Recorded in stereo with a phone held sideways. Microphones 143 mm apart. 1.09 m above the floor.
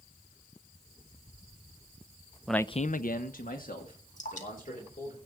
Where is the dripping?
60° left (ahead or behind), 2.5 m.